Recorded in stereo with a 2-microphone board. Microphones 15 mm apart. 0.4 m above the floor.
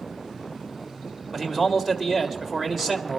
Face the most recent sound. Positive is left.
turn(degrees=-20)  # may be behind; listen again after turning